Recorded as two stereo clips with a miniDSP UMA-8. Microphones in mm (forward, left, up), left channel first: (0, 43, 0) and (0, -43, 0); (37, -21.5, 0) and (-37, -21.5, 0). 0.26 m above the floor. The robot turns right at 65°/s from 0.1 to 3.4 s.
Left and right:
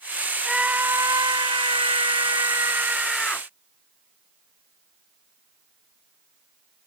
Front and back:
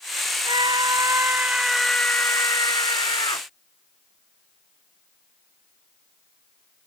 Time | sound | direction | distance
0.5 | a scream | 175° right | ?